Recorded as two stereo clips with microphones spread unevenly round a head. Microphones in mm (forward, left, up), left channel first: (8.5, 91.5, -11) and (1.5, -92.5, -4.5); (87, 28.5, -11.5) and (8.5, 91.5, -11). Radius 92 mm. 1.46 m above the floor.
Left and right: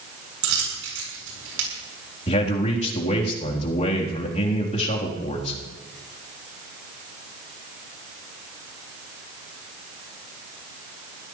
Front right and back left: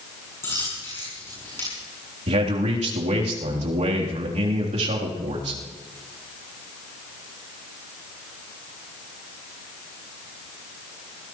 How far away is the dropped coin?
About 7.5 m.